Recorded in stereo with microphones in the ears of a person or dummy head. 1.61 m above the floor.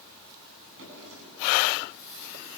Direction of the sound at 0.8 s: 70° right (ahead or behind).